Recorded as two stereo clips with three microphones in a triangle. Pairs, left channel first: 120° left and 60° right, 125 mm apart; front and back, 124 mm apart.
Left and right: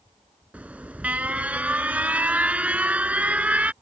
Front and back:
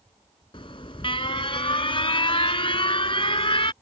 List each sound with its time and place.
0.5 s an alarm: 15° left